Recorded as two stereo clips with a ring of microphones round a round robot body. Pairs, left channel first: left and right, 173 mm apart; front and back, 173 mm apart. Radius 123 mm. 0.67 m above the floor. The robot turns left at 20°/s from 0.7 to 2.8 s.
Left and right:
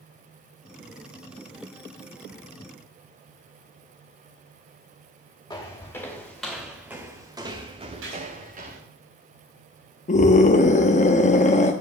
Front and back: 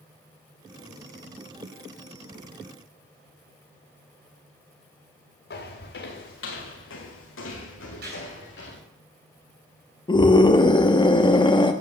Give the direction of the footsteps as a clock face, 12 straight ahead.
11 o'clock.